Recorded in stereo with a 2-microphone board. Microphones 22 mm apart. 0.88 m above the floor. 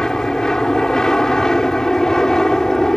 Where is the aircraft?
35° left (ahead or behind); by 3.0 s 30° left (ahead or behind).